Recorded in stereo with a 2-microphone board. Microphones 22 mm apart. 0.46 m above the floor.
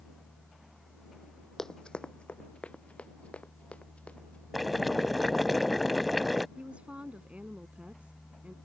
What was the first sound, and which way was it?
Running footsteps, 20° left (ahead or behind).